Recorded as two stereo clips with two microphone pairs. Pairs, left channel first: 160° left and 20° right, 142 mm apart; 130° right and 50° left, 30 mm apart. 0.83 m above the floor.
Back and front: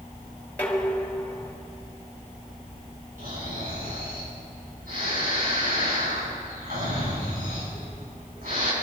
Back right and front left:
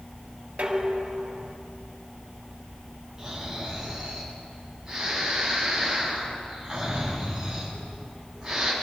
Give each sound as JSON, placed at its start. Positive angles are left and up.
{"t": 0.6, "sound": "dishes clattering", "azimuth_deg": 85, "distance_m": 2.5}
{"t": 3.2, "sound": "snoring", "azimuth_deg": -20, "distance_m": 7.5}